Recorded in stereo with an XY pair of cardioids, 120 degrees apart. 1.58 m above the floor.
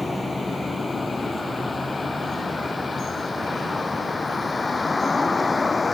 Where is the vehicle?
10° left; by 6.0 s 20° left.